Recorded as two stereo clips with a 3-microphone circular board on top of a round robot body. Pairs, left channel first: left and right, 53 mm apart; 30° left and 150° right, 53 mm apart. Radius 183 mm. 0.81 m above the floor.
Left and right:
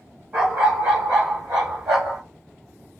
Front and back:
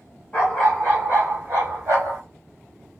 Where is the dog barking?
35° right, 0.6 m; by 2.2 s 125° right, 0.9 m.